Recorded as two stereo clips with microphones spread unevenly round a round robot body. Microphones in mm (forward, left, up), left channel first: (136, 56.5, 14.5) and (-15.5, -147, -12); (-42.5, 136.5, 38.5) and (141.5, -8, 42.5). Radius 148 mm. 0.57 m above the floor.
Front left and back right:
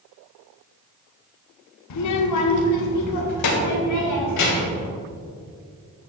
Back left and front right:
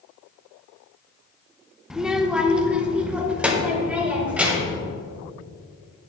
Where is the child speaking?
50° left, 0.8 m; by 4.8 s 45° left, 2.5 m.